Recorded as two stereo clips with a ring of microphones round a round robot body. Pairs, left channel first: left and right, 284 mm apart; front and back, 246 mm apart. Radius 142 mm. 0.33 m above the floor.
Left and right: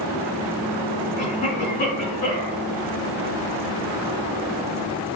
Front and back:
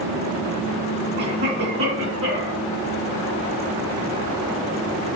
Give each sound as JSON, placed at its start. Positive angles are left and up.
{"t": 1.2, "sound": "a cough", "azimuth_deg": 155, "distance_m": 4.0}